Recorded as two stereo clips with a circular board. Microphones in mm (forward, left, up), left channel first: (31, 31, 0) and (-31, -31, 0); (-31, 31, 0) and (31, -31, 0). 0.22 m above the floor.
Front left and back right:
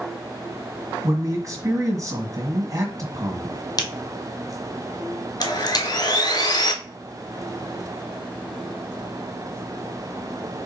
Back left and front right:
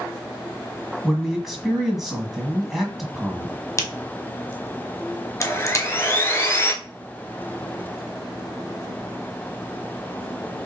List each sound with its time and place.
1.0 s a man speaking: 130° right, 1.6 m
3.8 s a crack: 80° left, 1.1 m
5.4 s sawing: 75° left, 0.8 m